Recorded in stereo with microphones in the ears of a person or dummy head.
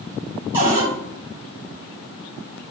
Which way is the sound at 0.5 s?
20° right (ahead or behind).